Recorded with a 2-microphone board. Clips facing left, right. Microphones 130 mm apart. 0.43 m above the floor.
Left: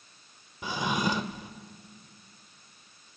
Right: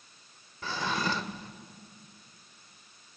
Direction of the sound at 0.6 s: 15° left (ahead or behind).